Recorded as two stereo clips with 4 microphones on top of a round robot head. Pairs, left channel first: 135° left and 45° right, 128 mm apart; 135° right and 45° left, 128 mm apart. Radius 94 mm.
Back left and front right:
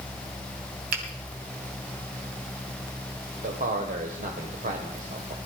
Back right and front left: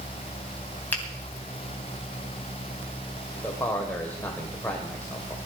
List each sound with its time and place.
0.9 s a finger snap: 55° right, 2.5 m
3.4 s a man speaking: 55° right, 1.9 m